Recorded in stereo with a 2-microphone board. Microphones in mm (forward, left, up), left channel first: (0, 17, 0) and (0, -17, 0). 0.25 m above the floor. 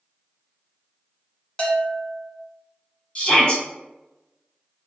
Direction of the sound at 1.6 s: 30° left (ahead or behind).